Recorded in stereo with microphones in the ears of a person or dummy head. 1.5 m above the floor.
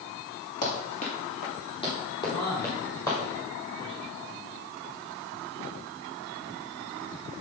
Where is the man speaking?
40° left (ahead or behind), 3.5 m.